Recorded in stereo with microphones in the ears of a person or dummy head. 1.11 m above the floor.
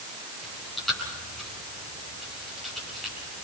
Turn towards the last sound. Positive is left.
turn(degrees=5)  # may be behind; listen again after turning